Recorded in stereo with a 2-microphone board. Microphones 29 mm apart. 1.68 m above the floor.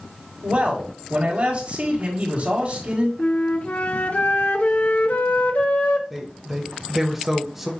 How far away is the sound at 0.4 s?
About 4.5 m.